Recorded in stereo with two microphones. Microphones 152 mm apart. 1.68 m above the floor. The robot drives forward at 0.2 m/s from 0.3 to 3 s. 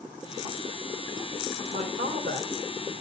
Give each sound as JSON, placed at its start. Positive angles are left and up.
{"t": 1.7, "sound": "a man speaking", "side_deg": -65, "distance_m": 2.5}